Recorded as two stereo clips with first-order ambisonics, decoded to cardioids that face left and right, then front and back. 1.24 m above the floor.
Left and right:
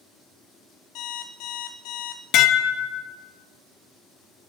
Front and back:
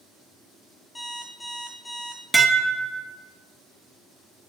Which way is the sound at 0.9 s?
80° left.